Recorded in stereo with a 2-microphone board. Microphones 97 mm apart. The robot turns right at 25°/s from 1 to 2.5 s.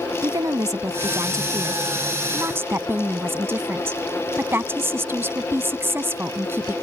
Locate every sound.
0.2 s a woman speaking: 80° right; by 6.7 s 45° right